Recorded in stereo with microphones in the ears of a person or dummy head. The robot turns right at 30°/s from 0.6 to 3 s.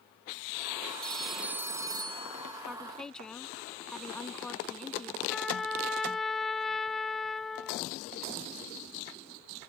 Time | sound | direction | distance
1.0 | a phone ringing | straight behind | ?
2.6 | a woman speaking | centre (ahead or behind) | ?
5.3 | a trumpet | 10° left (ahead or behind) | ?